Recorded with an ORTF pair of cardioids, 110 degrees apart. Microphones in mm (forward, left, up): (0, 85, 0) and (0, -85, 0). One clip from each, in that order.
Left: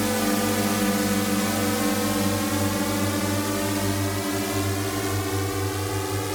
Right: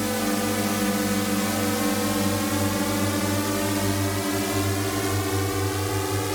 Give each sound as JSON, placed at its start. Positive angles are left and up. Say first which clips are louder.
{"t": 0.0, "sound": "a drone", "louder": "left 2 dB", "azimuth_deg": 45}